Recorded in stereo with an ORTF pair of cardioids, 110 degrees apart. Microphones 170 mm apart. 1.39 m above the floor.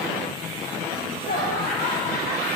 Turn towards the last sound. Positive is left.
turn(degrees=55)